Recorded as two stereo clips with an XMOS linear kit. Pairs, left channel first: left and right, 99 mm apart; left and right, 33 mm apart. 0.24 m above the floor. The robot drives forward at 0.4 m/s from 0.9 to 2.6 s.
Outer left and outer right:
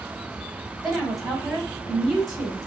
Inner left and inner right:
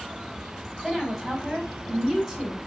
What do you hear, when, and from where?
0.8 s a woman speaking: centre (ahead or behind), 1.5 m